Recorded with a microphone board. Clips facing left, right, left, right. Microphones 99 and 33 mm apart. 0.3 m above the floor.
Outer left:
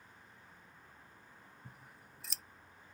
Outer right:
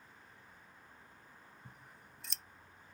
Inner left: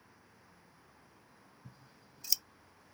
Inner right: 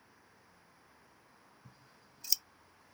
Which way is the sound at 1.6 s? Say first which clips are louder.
Even, inner left 2 dB; centre (ahead or behind).